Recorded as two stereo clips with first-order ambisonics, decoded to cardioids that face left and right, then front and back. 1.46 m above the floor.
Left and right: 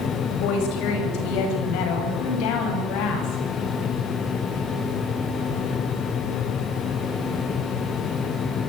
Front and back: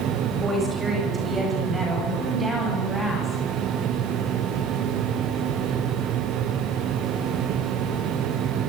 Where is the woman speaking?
100° left, 9 m; by 3.4 s 95° left, 11.5 m.